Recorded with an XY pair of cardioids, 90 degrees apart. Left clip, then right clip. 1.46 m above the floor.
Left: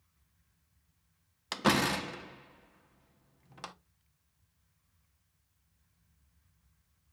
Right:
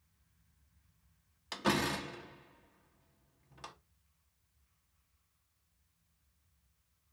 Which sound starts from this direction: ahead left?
A door slam, at 1.5 s.